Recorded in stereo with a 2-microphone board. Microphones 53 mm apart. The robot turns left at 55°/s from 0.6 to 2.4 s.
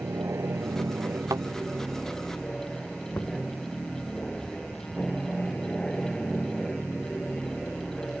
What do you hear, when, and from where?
0.0 s an aircraft: 65° right (ahead or behind); by 8.2 s 20° left (ahead or behind)
1.3 s a thud: 85° right; by 1.5 s 75° right (ahead or behind)
3.1 s knocking: 45° left (ahead or behind)